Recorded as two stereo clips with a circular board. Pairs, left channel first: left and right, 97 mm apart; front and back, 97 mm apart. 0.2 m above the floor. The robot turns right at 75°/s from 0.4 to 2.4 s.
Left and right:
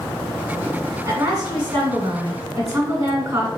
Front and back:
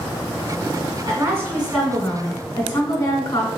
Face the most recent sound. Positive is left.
turn(degrees=-35)